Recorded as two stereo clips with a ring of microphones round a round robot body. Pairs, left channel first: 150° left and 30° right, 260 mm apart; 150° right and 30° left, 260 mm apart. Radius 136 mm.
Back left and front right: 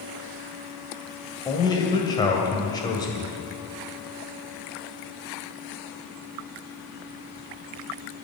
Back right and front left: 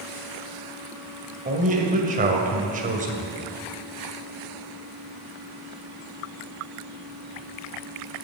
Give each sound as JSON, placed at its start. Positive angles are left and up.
{"t": 1.4, "sound": "a man speaking", "azimuth_deg": 80, "distance_m": 2.0}